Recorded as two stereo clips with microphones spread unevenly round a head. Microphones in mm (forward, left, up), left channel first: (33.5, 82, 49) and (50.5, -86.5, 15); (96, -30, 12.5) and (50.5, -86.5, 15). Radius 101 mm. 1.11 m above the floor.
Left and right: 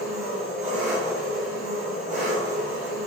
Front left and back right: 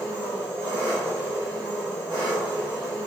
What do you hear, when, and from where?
0.0 s an engine running: 140° right, 0.8 m